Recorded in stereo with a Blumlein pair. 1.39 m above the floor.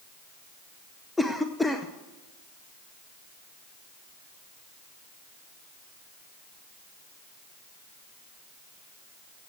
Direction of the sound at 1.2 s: 5° left.